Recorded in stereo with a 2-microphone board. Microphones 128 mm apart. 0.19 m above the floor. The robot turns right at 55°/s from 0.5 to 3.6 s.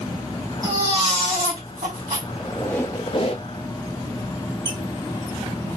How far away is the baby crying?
About 3 m.